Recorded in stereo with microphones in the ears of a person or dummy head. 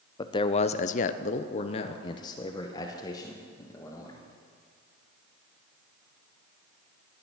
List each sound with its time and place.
0.2 s a man speaking: 20° left (ahead or behind), 0.6 m